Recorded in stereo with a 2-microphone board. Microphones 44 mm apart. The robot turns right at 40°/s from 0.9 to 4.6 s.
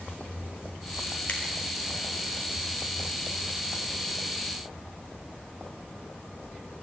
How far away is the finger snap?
About 2.5 m.